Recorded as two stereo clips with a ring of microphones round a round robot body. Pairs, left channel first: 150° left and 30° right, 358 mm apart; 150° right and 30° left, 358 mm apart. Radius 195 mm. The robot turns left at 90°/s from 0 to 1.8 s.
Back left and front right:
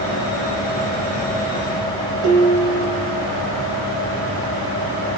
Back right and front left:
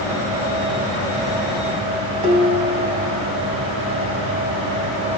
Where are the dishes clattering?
15° left, 2.5 m.